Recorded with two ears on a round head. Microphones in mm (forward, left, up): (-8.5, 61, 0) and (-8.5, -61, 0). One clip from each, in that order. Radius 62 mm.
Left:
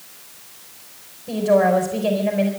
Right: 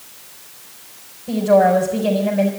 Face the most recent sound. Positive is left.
turn(degrees=20)  # may be behind; listen again after turning